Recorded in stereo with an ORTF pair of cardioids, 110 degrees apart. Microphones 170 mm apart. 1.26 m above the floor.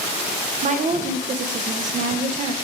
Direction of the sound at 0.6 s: 50° right.